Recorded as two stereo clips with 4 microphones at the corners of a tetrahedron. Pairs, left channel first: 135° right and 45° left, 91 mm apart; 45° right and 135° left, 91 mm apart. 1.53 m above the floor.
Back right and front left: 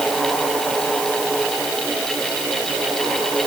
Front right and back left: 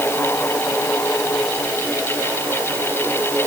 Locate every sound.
Only background noise.